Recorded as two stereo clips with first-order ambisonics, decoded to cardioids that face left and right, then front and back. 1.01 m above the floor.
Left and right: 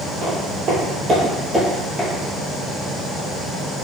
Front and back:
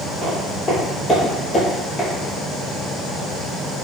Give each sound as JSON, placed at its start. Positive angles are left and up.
{"t": 0.2, "sound": "footsteps", "azimuth_deg": -75, "distance_m": 1.6}